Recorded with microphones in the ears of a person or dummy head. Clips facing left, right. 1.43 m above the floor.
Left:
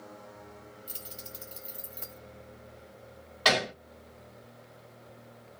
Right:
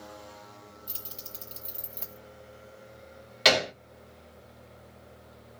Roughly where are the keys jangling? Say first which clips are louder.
Left 1 dB; centre.